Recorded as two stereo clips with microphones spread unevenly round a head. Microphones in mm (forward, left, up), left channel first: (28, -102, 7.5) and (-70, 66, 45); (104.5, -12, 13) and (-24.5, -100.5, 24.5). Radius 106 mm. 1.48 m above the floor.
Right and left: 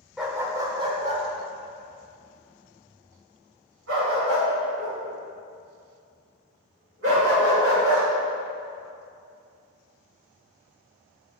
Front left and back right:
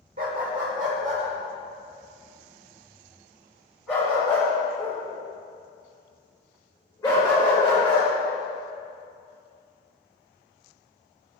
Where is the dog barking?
160° right, 1.8 m; by 8.1 s 115° left, 9 m.